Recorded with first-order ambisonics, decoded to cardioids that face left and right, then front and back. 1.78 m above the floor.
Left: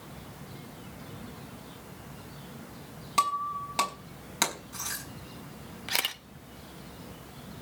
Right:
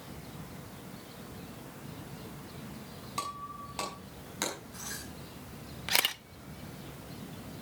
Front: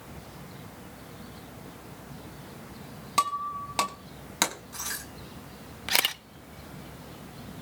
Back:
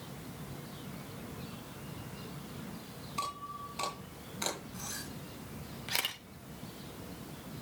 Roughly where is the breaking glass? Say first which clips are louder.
Left 11 dB, front 12 dB; ahead left.